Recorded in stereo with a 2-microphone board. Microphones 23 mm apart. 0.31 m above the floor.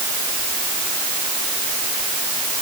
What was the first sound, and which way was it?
Only background noise.